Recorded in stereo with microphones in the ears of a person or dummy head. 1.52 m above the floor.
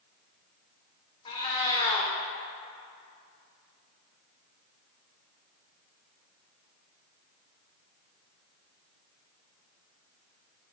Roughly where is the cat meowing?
Left.